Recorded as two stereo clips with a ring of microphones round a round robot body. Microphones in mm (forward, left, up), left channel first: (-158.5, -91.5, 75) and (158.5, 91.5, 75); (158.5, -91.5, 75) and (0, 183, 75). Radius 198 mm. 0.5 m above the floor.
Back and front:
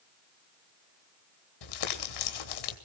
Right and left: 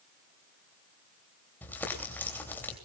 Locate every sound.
1.6 s crumpling: 145° right, 3 m